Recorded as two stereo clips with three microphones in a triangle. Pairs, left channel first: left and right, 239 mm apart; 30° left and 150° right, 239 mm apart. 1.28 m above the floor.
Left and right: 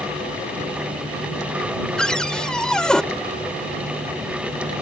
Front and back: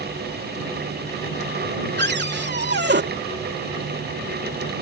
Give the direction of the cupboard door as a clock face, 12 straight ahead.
6 o'clock.